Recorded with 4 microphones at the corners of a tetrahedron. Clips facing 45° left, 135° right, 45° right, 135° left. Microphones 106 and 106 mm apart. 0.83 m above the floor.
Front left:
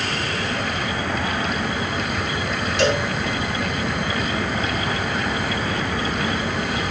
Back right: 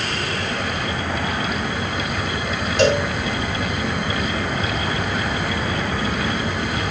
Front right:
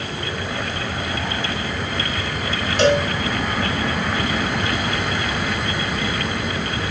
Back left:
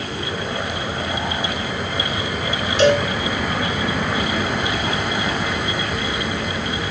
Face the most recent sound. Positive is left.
turn(degrees=-90)